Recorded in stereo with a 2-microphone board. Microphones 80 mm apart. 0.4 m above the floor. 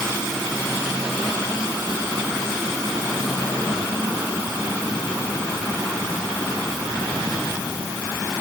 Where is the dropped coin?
No dropped coin in this recording.